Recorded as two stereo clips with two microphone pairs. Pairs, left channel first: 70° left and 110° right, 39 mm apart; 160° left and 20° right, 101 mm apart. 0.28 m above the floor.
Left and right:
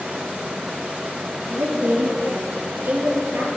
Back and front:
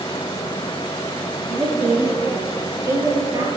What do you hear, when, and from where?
1.5 s a woman speaking: 95° right, 4.5 m; by 3.5 s 75° right, 5 m